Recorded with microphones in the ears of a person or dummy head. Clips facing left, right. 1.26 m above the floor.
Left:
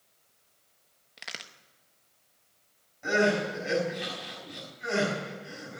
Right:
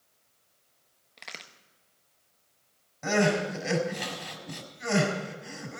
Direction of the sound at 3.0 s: 65° right (ahead or behind).